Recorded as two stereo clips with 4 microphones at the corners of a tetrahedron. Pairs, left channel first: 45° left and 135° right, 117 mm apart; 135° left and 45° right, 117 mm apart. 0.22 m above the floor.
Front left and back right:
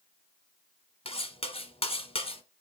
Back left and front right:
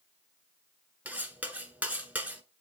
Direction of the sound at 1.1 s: 30° left.